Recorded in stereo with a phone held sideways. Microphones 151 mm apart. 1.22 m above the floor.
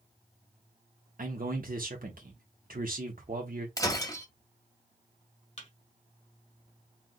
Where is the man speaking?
70° right (ahead or behind), 1.2 m.